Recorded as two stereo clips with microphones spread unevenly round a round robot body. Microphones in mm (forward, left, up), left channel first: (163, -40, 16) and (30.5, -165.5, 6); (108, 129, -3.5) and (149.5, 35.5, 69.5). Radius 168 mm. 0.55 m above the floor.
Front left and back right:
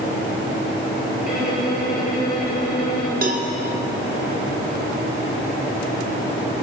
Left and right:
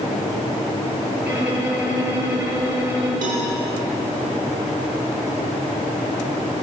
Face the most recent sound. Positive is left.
turn(degrees=-105)